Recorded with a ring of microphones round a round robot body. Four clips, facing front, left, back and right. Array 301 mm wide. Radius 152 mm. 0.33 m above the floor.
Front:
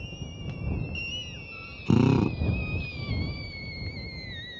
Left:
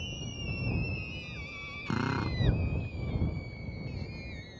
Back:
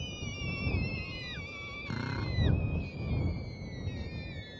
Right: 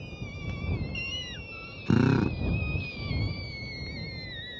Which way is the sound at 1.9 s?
30° right.